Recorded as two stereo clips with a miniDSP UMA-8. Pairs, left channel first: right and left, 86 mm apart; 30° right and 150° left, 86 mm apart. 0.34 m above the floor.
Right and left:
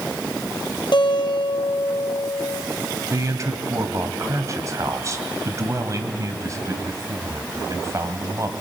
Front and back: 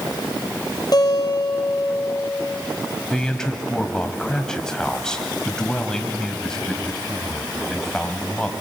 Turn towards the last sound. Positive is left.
turn(degrees=50)